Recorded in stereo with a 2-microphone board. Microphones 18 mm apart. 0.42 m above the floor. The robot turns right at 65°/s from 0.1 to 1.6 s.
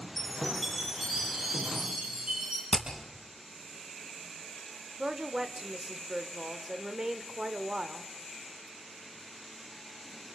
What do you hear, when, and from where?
0.2 s a chime: 160° left, 10 m; by 2.6 s 110° right, 10 m
2.7 s hammering: 70° left (ahead or behind), 4 m
5.0 s a woman speaking: 30° right (ahead or behind), 1.1 m